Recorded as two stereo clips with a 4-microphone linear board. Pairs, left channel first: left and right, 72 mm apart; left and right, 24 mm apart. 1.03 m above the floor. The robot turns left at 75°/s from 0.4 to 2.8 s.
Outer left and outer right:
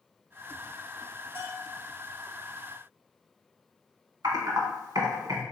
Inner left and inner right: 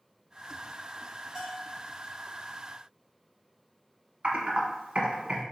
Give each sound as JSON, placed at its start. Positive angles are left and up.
{"t": 1.4, "sound": "a bell", "azimuth_deg": -30, "distance_m": 1.0}
{"t": 4.2, "sound": "typing on a keyboard", "side_deg": -65, "distance_m": 1.0}